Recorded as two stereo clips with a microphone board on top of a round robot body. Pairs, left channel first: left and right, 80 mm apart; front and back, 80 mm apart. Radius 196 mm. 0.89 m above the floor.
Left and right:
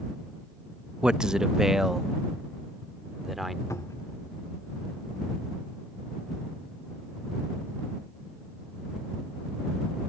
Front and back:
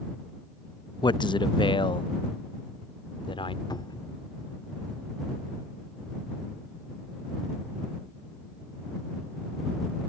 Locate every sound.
1.0 s a man speaking: 10° right; by 3.6 s straight ahead
3.7 s a cupboard door: 35° left